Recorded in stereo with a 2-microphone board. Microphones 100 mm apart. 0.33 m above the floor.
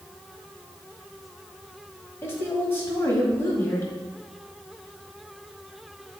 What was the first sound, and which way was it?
A woman speaking, 25° left (ahead or behind).